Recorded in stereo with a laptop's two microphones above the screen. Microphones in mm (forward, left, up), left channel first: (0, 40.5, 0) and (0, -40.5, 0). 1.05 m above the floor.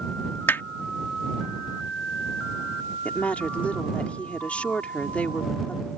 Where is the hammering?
30° left (ahead or behind).